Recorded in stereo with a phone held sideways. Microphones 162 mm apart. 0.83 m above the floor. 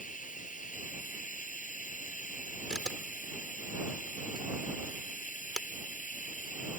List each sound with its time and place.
0.0 s running water: 55° left (ahead or behind)
2.7 s a camera shutter: 5° right (ahead or behind)